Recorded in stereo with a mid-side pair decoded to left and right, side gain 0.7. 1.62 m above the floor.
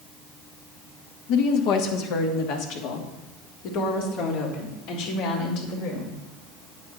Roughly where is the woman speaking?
Ahead left.